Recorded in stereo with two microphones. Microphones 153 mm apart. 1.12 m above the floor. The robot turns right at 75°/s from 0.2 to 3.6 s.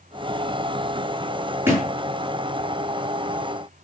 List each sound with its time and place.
1.7 s a thud: 15° right (ahead or behind), 6.5 m; by 1.9 s 5° left (ahead or behind), 6.5 m